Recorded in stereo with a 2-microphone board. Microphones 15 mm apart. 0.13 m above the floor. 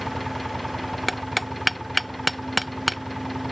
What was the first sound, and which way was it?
An engine running, 10° left (ahead or behind).